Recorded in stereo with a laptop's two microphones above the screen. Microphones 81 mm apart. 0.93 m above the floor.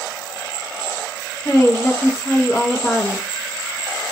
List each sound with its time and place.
1.4 s a woman speaking: 30° left (ahead or behind), 0.7 m